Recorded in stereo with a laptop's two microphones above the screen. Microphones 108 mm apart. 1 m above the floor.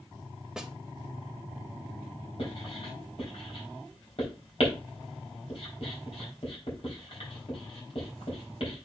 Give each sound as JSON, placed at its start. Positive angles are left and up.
{"t": 0.6, "sound": "a snare drum", "side_deg": -5, "distance_m": 0.7}
{"t": 2.4, "sound": "writing", "side_deg": 60, "distance_m": 4.0}